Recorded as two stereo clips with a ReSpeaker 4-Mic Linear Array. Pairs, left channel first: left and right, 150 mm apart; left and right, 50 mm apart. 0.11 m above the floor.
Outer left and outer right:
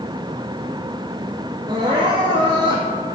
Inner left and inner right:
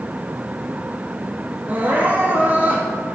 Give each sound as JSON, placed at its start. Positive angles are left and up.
{"t": 1.7, "sound": "crying", "side_deg": -30, "distance_m": 1.4}